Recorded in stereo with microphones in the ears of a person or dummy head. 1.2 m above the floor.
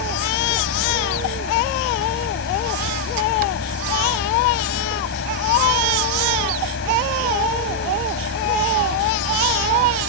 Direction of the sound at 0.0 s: 70° left (ahead or behind).